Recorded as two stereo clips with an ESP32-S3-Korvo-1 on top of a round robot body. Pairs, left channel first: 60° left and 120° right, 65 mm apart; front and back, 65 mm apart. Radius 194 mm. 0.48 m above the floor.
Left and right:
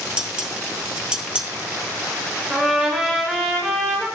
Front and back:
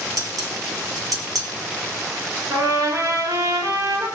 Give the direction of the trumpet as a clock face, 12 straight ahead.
7 o'clock.